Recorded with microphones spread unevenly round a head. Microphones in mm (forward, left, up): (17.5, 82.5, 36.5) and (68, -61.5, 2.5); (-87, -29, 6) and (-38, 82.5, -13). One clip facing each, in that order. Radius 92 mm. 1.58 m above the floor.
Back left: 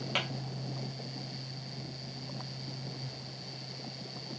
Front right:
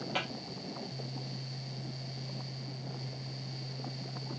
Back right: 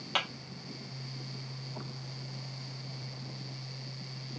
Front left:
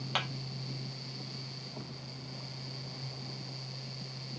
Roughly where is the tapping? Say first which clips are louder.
Even, back right 2 dB; behind.